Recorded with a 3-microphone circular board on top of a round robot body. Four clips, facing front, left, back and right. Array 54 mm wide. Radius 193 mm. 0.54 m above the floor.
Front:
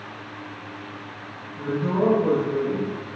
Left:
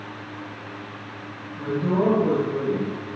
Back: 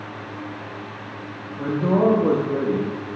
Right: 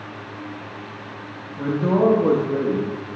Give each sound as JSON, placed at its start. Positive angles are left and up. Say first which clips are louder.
{"t": 1.6, "sound": "a man speaking", "louder": "right 4 dB, back 4 dB", "azimuth_deg": -130, "distance_m": 1.2}